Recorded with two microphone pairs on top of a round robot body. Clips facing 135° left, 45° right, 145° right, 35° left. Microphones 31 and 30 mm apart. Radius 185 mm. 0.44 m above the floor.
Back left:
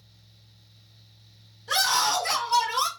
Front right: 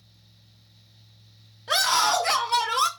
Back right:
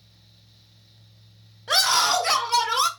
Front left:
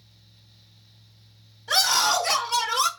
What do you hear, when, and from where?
1.7 s a scream: 95° right, 3 m; by 2.9 s 85° right, 2.5 m